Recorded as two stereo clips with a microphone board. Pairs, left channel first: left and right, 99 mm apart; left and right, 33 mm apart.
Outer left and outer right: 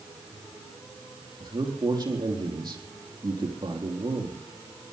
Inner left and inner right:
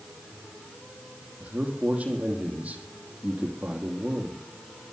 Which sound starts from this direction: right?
A man speaking, at 1.4 s.